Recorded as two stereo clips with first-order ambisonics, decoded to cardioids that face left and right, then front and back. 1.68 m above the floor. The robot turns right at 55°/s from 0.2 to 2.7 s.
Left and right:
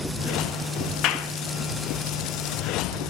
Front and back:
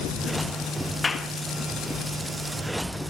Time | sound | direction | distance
1.0 | a clap | 70° left | 1.5 m